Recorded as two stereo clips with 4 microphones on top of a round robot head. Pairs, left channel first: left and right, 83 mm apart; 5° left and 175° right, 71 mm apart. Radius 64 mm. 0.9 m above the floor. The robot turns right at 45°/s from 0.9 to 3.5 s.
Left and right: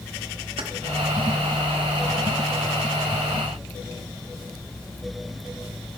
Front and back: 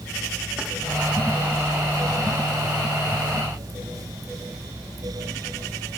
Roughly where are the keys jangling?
Right.